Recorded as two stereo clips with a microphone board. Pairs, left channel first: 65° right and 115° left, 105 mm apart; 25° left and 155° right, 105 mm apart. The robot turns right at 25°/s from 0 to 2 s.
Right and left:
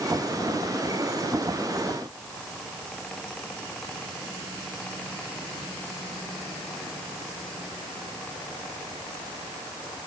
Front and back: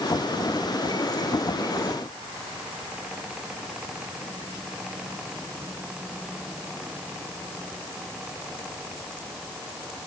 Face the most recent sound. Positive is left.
No sound to turn to.